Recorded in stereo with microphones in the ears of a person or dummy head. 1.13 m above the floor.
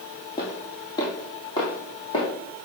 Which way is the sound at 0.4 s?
20° left (ahead or behind).